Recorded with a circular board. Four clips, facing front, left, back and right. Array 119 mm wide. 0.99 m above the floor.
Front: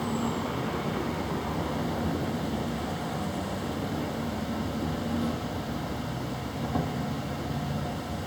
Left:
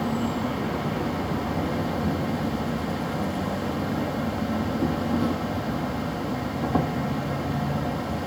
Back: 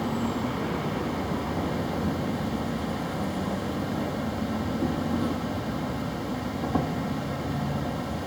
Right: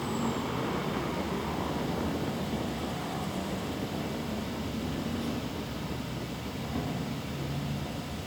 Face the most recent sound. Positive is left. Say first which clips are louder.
# left 5 dB, back 2 dB
turn(degrees=110)